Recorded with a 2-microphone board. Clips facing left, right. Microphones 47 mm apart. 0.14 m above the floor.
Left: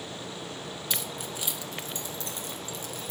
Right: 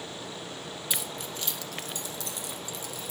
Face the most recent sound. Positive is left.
turn(degrees=55)  # may be behind; listen again after turning